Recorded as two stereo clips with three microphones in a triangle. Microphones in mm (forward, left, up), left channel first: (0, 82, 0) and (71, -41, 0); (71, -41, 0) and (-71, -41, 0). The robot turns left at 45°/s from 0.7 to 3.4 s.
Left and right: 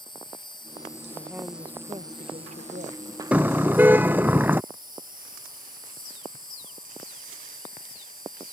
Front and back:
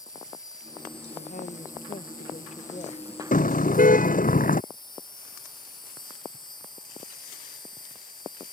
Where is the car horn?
20° left; by 4.6 s 15° left.